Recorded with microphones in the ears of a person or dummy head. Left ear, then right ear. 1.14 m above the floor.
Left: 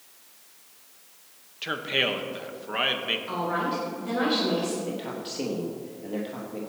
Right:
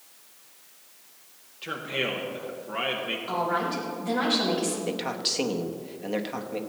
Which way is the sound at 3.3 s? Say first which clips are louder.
Right 1 dB; 5° right (ahead or behind).